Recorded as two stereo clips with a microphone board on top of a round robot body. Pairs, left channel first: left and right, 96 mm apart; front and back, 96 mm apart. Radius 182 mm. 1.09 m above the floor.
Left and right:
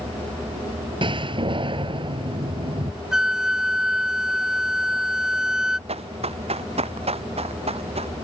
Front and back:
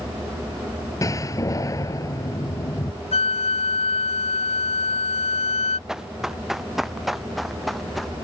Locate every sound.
1.0 s a door slam: 55° right
3.1 s a flute: 5° right
5.9 s running footsteps: 95° right; by 8.1 s 90° right